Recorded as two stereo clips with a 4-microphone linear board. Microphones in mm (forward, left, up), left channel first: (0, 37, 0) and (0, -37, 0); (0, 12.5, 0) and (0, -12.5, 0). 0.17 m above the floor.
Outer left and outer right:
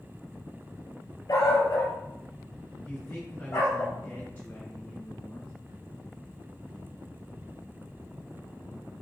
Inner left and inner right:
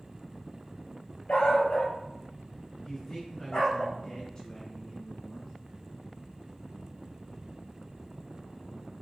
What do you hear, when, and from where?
1.3 s a dog barking: 60° left (ahead or behind), 0.9 m; by 3.8 s 40° left (ahead or behind), 2.5 m
2.8 s a man speaking: 30° left (ahead or behind), 1.7 m